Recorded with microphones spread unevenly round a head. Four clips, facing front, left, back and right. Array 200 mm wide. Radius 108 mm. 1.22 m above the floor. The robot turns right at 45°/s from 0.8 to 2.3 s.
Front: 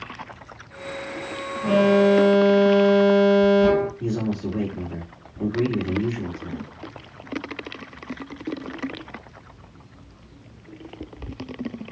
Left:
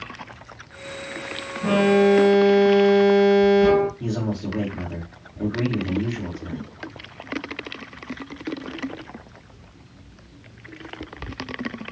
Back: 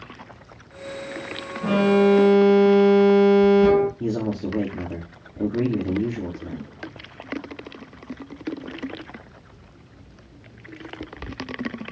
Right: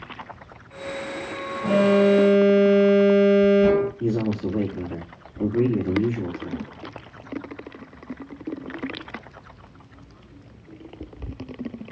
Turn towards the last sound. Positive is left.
turn(degrees=-170)